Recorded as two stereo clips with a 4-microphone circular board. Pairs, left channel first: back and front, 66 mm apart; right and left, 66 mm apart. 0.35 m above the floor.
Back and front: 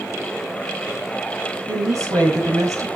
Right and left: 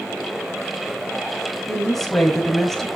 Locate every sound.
1.7 s a woman speaking: 5° right, 1.9 m